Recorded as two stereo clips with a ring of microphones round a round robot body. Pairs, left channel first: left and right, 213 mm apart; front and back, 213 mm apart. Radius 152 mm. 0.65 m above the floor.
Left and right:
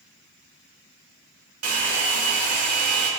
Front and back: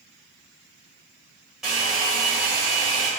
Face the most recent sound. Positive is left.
turn(degrees=-90)